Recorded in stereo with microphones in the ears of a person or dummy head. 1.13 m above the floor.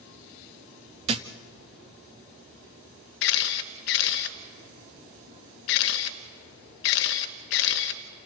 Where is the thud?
30° right (ahead or behind), 0.6 m.